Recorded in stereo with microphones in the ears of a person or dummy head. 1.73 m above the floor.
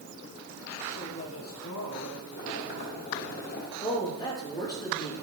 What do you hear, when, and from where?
0.9 s a woman speaking: 70° left (ahead or behind), 3 m
2.3 s boiling: 60° left (ahead or behind), 2 m
3.8 s a woman speaking: 20° left (ahead or behind), 3.5 m